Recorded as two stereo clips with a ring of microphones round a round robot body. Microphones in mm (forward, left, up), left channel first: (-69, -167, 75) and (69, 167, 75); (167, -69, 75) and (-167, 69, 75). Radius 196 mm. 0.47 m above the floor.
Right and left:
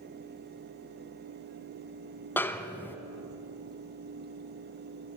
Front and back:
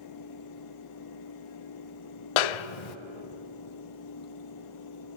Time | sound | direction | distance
2.4 | a snare drum | 30° right | 0.6 m